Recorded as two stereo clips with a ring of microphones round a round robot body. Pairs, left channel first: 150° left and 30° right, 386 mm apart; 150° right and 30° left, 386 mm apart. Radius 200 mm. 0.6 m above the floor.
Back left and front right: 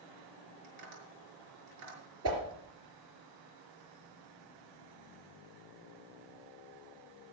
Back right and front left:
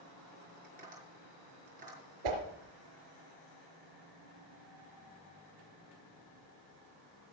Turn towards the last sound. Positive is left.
turn(degrees=25)